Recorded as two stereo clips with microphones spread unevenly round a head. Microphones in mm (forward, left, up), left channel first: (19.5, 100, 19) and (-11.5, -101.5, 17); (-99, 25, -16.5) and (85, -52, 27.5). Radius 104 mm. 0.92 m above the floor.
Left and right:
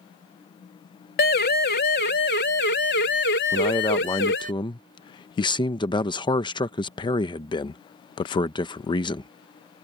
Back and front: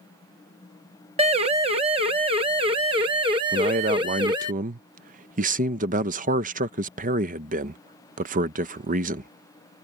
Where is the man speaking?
25° left.